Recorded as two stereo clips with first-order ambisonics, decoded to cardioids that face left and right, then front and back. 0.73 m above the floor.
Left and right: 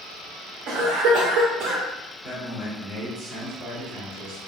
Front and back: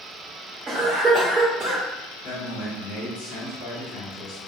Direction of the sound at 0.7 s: 105° right.